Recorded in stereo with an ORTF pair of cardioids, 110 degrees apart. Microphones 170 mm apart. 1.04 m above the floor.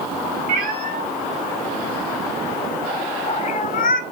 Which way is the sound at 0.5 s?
65° right.